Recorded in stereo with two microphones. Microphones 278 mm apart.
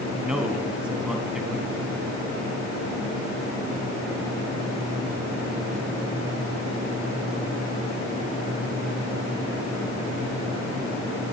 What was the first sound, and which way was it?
A man speaking, 5° right (ahead or behind).